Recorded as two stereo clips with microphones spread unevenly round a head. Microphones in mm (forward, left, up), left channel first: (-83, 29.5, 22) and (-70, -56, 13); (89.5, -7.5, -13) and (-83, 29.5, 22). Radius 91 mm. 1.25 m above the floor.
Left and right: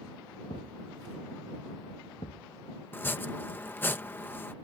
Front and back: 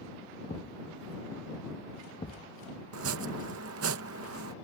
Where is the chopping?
165° left.